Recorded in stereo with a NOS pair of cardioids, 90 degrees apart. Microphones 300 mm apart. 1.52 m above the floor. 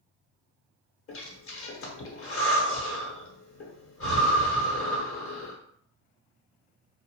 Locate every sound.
1.1 s breathing: 45° left, 1.0 m